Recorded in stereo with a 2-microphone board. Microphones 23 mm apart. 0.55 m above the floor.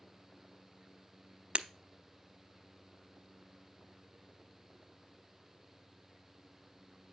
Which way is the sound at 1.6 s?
65° right (ahead or behind).